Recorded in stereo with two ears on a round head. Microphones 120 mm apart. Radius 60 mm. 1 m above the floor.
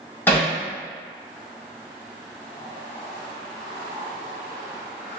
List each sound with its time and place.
0.3 s hammering: 15° left (ahead or behind), 1.7 m